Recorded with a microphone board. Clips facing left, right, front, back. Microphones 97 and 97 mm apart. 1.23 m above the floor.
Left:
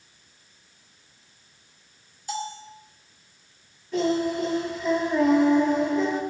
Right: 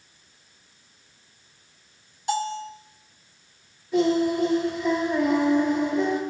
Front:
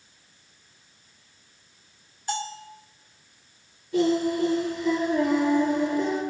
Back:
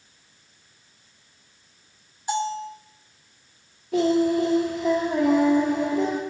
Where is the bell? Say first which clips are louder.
Right 6 dB, back 6 dB; 110° right, 3 m.